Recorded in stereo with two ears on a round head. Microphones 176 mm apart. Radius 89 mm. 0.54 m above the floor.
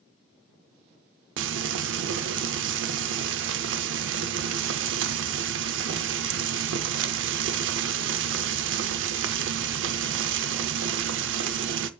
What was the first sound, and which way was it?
Frying, 65° right (ahead or behind).